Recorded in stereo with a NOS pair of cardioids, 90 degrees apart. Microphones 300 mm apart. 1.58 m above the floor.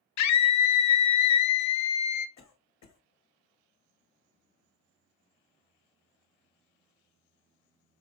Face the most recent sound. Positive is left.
turn(degrees=65)